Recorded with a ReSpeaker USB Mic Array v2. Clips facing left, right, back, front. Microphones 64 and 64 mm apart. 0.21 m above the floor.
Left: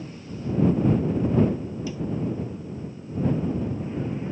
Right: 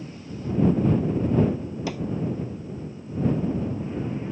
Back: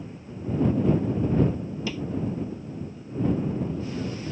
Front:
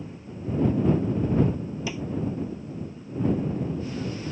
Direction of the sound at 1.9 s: 75° right.